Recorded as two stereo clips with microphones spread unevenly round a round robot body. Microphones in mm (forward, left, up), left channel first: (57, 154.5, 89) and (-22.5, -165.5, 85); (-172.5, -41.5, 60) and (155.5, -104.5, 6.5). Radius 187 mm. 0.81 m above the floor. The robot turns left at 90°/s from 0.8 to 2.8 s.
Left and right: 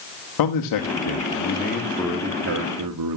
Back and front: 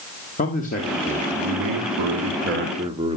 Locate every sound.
0.4 s a man speaking: 100° left, 1.6 m; by 3.2 s 80° right, 1.6 m